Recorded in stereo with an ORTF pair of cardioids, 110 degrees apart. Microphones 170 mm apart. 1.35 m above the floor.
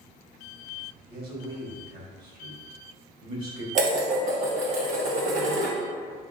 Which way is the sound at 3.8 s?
50° right.